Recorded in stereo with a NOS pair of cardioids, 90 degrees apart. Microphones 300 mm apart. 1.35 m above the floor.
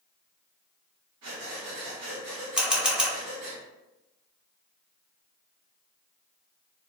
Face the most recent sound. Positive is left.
turn(degrees=0)